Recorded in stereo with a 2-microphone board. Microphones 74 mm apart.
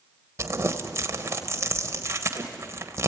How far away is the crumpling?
About 1.2 m.